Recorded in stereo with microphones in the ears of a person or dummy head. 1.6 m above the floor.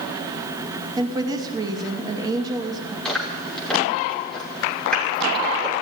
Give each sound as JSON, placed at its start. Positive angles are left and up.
{"t": 1.0, "sound": "a woman speaking", "side_deg": -20, "distance_m": 2.5}
{"t": 3.0, "sound": "chewing", "side_deg": 5, "distance_m": 5.5}